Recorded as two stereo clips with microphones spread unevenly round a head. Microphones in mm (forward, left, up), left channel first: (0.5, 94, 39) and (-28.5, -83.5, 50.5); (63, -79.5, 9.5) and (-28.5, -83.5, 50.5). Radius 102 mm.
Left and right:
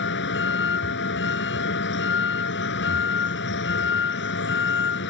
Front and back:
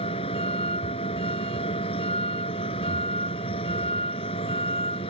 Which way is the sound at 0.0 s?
50° left.